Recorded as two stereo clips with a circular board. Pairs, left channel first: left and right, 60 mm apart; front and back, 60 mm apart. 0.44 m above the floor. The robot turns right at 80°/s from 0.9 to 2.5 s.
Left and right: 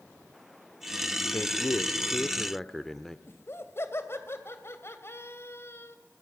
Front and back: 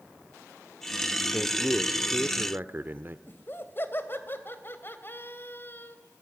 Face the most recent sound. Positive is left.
turn(degrees=50)